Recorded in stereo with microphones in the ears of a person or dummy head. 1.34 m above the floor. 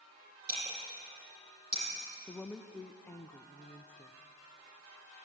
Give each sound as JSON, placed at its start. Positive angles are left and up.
{"t": 0.5, "sound": "breaking glass", "side_deg": -55, "distance_m": 9.5}
{"t": 2.3, "sound": "a woman speaking", "side_deg": 10, "distance_m": 0.7}